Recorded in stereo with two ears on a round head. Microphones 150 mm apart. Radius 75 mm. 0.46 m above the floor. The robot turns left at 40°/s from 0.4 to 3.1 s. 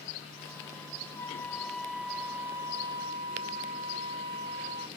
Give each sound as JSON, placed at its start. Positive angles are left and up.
{"t": 1.1, "sound": "a flute", "azimuth_deg": 25}